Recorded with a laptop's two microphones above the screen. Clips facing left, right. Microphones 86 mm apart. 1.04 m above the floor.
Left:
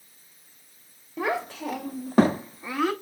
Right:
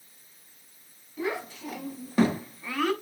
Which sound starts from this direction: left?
A child speaking, at 1.2 s.